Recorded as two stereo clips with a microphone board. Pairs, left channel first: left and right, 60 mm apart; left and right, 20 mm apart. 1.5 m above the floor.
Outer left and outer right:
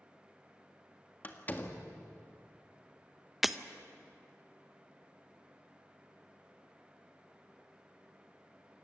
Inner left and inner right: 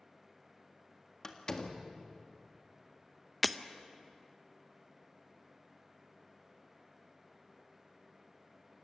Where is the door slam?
30° left (ahead or behind), 1.7 m.